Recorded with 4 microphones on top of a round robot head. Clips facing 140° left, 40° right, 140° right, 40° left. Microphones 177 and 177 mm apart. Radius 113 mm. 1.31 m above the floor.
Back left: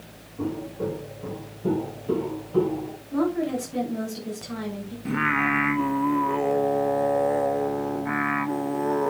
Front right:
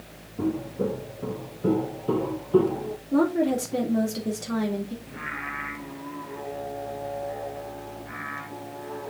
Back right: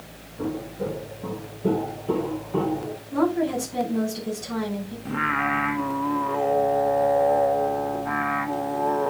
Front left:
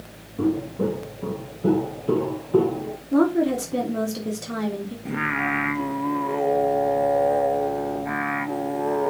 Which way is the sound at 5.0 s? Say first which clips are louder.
Back left 13 dB, even; 120° left.